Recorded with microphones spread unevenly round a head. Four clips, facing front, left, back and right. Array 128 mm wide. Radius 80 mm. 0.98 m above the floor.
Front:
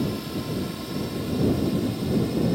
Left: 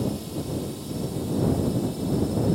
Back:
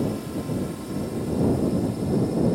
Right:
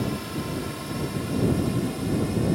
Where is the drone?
65° right; by 2.6 s 60° right.